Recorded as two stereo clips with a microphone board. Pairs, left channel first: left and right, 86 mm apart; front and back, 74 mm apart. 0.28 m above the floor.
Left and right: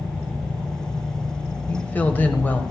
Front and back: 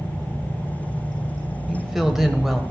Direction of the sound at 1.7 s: 100° left.